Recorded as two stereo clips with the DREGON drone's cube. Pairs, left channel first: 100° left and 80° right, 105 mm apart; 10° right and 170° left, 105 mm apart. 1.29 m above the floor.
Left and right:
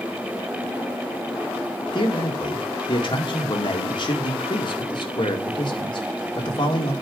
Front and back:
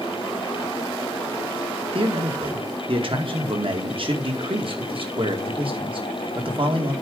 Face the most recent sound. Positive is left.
turn(degrees=140)